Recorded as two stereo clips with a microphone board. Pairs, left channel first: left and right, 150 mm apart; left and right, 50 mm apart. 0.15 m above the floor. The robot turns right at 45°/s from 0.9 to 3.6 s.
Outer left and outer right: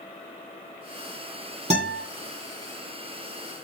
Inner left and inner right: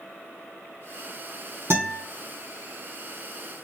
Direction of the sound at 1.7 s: 50° right (ahead or behind).